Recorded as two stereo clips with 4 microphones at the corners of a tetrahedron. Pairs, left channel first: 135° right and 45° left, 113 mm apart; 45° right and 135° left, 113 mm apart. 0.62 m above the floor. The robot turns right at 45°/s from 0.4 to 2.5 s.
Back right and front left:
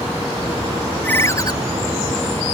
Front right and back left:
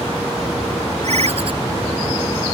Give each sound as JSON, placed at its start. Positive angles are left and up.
{"t": 1.0, "sound": "a ringtone", "azimuth_deg": 150}